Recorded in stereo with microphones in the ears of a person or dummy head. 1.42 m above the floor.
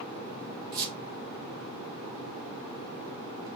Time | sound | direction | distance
0.7 | a squeak | 45° right (ahead or behind) | 0.7 m